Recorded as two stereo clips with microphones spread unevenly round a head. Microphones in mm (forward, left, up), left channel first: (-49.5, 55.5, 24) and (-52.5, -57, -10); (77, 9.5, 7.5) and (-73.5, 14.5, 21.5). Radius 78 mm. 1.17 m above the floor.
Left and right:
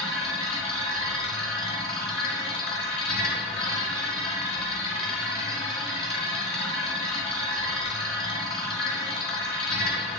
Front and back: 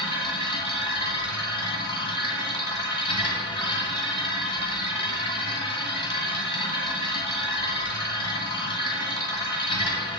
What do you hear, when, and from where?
0.0 s a machine running: 60° left, 2.0 m